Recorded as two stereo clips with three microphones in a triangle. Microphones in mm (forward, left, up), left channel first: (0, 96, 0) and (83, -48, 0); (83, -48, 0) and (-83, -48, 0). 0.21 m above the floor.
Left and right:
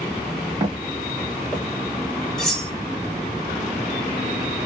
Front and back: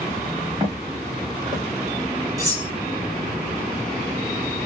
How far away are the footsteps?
About 1.7 m.